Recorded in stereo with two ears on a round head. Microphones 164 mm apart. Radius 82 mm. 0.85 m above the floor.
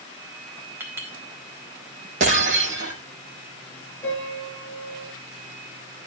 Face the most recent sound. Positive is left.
turn(degrees=10)  # may be behind; listen again after turning